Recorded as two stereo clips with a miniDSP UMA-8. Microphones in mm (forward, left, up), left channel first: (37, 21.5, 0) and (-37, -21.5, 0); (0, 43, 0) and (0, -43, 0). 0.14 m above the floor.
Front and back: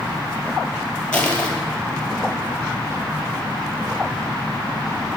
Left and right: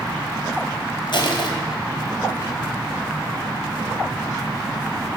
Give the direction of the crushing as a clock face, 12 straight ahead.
8 o'clock.